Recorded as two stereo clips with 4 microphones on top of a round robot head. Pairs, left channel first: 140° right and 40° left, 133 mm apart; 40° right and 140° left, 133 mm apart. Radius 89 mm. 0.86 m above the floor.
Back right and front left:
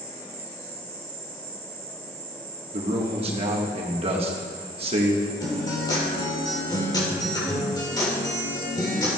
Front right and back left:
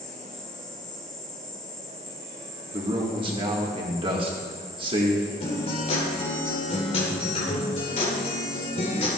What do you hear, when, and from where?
0.0 s an insect: 45° left, 1.2 m
2.7 s a man speaking: 85° left, 1.6 m
5.4 s a guitar: 80° right, 3 m